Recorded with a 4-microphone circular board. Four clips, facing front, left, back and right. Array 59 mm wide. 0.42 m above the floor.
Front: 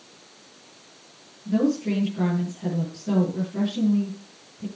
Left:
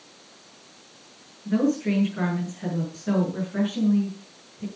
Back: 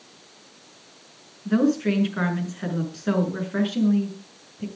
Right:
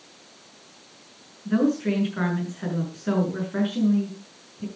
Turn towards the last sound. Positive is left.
turn(degrees=-160)